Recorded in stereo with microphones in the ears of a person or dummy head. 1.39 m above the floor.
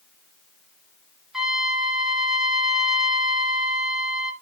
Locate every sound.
1.3 s a trumpet: 5° left (ahead or behind), 1.3 m